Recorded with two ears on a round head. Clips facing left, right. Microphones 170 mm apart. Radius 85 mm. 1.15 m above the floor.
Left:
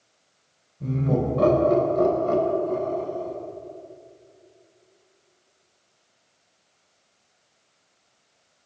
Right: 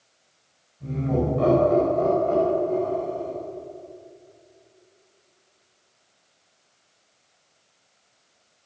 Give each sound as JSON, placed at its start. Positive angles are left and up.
{"t": 0.8, "sound": "laughter", "side_deg": 65, "distance_m": 4.5}